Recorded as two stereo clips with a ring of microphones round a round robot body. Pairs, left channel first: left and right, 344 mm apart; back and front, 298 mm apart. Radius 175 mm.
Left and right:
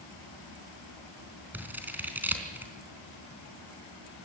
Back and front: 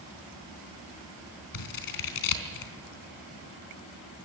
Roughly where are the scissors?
Behind.